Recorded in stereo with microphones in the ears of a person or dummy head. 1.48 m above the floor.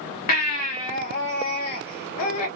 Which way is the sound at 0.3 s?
50° left (ahead or behind).